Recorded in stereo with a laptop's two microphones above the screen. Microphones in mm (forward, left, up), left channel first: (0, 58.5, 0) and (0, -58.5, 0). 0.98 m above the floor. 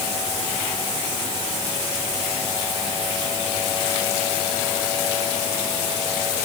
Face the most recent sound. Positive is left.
No sound to turn to.